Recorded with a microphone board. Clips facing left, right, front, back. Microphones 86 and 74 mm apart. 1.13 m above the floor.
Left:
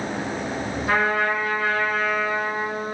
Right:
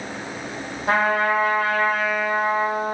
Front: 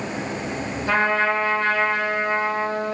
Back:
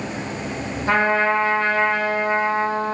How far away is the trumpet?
About 0.8 m.